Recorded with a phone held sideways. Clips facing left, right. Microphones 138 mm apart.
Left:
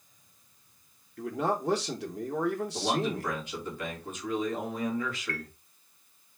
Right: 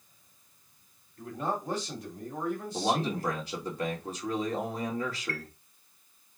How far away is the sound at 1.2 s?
About 1.0 m.